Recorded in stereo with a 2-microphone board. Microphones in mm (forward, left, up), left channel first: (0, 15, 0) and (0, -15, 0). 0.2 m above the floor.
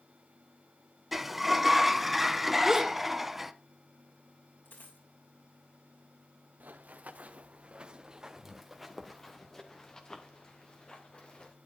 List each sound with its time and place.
1.1 s a sliding door: 10° right (ahead or behind), 0.8 m
2.6 s a gasp: 10° right (ahead or behind), 1.3 m
4.7 s a dropped coin: 75° left (ahead or behind), 5 m
6.6 s running footsteps: 65° right (ahead or behind), 1.4 m; by 11.6 s 40° left (ahead or behind), 3 m